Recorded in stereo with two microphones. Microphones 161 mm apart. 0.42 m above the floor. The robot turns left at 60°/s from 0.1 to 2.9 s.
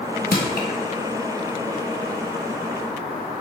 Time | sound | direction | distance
0.3 | crushing | 80° left | 1.2 m